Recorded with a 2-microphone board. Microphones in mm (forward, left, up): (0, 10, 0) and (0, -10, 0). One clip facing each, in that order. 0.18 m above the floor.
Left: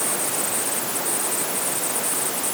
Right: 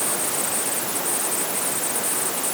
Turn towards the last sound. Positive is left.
No sound to turn to.